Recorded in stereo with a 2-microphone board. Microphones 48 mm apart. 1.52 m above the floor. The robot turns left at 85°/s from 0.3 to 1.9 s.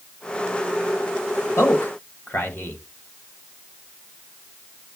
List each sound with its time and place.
1.6 s a man speaking: 75° left (ahead or behind), 1.7 m; by 2.8 s 45° left (ahead or behind), 1.7 m